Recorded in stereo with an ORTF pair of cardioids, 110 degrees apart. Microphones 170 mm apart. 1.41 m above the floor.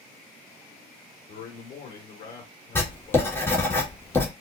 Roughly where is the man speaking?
Ahead left.